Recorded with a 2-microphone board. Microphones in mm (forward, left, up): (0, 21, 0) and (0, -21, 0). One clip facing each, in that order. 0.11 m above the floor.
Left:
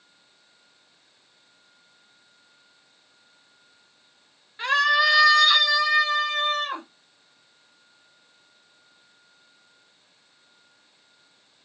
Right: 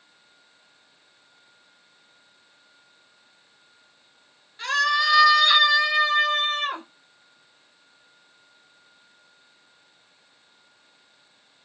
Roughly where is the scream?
Left.